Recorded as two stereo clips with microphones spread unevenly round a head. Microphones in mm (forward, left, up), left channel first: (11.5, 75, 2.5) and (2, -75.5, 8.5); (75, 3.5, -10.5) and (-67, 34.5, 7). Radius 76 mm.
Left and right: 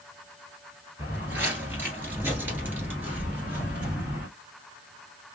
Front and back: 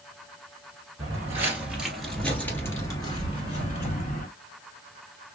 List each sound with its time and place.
1.0 s footsteps: 160° right, 1.9 m; by 4.3 s 20° right, 2 m